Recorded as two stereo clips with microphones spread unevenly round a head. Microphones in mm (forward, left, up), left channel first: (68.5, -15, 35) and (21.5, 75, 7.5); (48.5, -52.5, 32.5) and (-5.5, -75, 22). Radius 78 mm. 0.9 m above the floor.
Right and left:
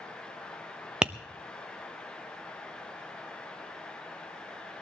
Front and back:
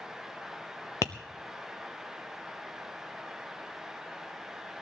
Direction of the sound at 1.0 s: 55° left.